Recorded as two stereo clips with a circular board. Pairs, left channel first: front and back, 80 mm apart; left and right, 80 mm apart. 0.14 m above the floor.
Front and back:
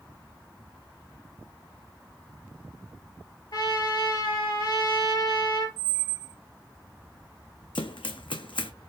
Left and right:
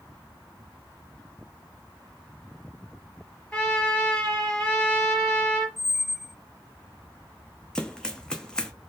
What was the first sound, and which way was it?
A trumpet, 20° left.